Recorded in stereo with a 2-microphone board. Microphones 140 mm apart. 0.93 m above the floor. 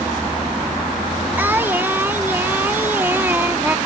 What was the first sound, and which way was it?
Singing, 15° right (ahead or behind).